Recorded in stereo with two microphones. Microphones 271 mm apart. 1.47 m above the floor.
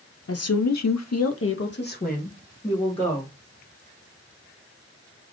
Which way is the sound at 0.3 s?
55° left (ahead or behind).